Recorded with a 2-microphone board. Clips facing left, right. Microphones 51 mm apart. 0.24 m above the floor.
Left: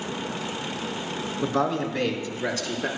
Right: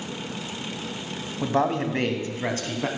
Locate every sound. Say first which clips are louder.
1.4 s a man speaking: right 2 dB; 35° right (ahead or behind), 1.9 m; by 2.9 s 40° right (ahead or behind), 2.5 m